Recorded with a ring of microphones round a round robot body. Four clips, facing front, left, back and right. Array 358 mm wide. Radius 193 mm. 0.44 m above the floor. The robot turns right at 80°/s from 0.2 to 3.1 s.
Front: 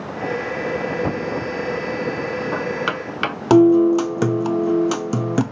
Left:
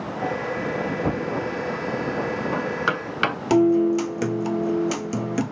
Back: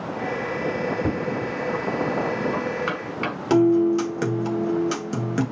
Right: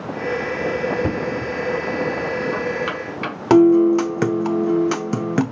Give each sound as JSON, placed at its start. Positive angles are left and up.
{"t": 1.0, "sound": "knocking", "azimuth_deg": -105, "distance_m": 1.9}
{"t": 3.5, "sound": "a guitar", "azimuth_deg": -50, "distance_m": 1.1}